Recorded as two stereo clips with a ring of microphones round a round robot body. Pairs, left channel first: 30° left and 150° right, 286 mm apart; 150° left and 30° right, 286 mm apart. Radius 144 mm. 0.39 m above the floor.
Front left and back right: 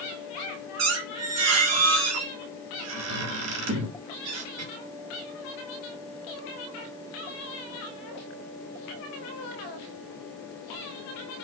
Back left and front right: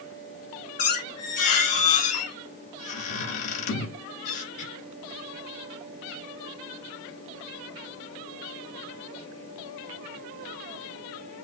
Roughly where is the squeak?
Behind.